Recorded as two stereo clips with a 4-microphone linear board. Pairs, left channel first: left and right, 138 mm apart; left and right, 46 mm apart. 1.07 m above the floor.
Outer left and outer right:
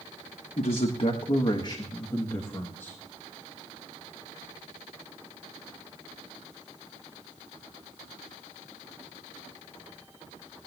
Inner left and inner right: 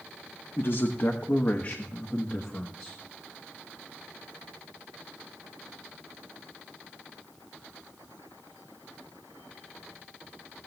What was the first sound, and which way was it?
A man speaking, 55° left (ahead or behind).